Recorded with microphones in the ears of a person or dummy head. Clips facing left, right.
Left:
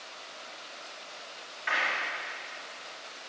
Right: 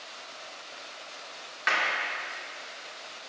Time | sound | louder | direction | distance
1.7 | a clap | right 3 dB | 85° right | 5 m